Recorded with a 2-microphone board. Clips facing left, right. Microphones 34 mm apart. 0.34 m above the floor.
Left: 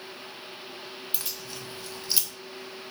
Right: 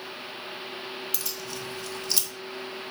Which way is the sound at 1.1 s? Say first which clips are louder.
Right 3 dB; 30° left (ahead or behind).